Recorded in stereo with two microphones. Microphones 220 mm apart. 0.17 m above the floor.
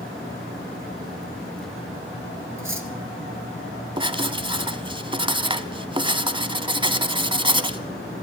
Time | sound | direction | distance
2.6 | cutlery clinking | 65° right (ahead or behind) | 2 m
4.0 | writing | 20° right (ahead or behind) | 1.2 m